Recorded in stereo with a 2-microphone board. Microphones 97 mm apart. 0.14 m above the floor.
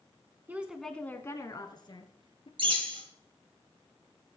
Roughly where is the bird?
Right.